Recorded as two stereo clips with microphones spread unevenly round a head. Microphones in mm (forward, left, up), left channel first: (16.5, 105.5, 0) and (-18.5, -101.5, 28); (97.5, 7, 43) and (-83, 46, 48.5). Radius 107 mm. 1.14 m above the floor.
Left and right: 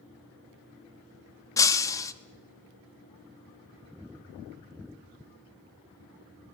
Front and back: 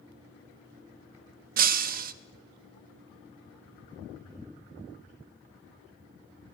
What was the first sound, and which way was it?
Breaking glass, 160° left.